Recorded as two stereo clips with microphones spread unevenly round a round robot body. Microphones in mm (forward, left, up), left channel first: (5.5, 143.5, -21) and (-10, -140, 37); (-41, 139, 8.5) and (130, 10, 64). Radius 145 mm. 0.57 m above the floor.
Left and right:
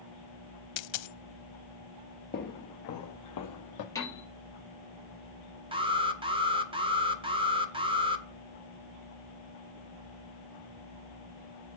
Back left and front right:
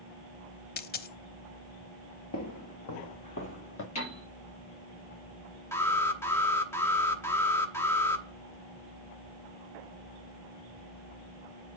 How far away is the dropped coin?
About 0.5 m.